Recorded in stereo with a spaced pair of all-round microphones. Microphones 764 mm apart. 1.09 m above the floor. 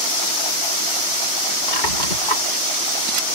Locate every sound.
1.7 s a squeak: 80° left